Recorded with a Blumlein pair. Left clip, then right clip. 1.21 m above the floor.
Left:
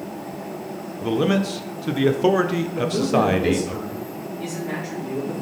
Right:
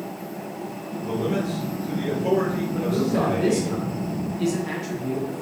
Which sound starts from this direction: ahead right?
A man speaking, at 2.7 s.